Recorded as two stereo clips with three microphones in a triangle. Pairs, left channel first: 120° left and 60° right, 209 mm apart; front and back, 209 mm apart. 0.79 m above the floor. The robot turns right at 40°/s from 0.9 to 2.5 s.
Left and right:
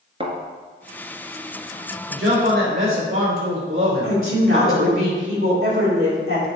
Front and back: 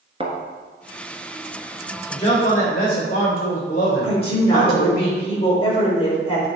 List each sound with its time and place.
0.2 s a thud: 120° right, 1.5 m
2.1 s a man speaking: 65° right, 3.5 m; by 5.0 s 50° right, 3.5 m
4.0 s a woman speaking: 60° right, 3 m